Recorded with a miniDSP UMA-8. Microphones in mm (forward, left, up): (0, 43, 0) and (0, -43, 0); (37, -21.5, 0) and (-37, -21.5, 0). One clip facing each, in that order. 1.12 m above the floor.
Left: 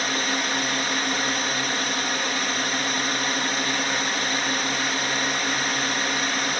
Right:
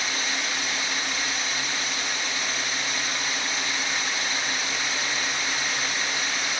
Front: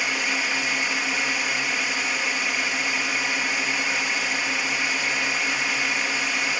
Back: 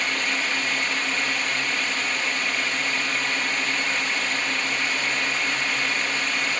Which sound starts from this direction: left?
A drone, at 0.0 s.